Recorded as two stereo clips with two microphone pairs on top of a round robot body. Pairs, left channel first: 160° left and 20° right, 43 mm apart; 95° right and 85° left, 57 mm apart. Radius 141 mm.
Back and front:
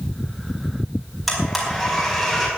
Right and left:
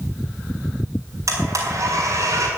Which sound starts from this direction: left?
A blender, at 1.3 s.